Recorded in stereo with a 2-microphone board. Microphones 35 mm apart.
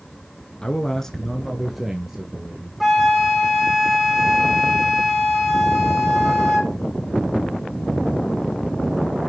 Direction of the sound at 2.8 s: 5° right (ahead or behind).